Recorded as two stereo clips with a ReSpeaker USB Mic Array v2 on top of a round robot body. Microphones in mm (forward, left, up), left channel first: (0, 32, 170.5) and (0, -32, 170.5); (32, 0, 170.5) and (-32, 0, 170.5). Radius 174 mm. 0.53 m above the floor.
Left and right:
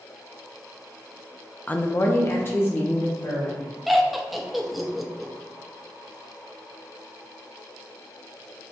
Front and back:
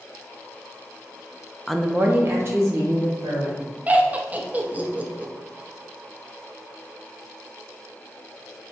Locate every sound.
1.7 s a woman speaking: 70° left, 0.7 m; by 3.6 s 145° left, 3 m
3.9 s laughter: 175° right, 0.9 m